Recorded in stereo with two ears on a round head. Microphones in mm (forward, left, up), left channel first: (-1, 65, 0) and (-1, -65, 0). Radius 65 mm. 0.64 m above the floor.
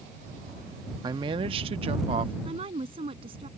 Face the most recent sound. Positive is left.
turn(degrees=-40)  # may be behind; listen again after turning